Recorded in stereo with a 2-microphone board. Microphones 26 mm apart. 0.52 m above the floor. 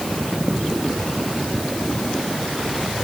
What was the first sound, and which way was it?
Only background noise.